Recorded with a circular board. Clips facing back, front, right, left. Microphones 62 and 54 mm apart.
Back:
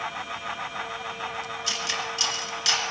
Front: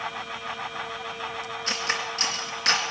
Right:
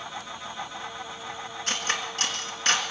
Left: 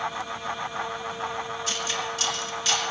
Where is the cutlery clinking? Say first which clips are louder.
Front 4 dB, right 4 dB; 50° right, 2.0 m.